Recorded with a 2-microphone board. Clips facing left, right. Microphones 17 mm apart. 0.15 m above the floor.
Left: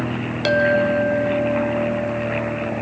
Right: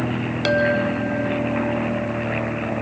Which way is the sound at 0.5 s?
5° right (ahead or behind).